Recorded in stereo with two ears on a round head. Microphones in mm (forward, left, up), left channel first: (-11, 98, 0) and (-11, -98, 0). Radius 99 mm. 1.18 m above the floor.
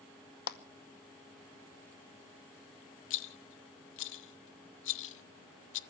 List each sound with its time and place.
0.5 s a clap: 45° left (ahead or behind), 0.9 m
3.1 s a rattle: 55° left (ahead or behind), 0.6 m